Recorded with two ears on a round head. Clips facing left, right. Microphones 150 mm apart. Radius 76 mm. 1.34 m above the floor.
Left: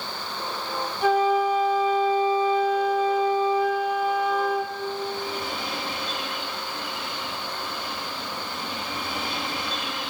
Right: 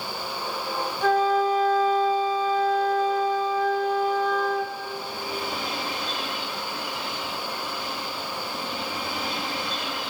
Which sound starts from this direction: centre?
A flute, at 1.0 s.